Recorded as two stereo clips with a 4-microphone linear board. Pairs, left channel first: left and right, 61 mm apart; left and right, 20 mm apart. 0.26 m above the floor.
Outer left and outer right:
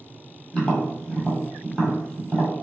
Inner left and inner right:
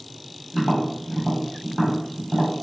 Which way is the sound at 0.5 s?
15° left (ahead or behind).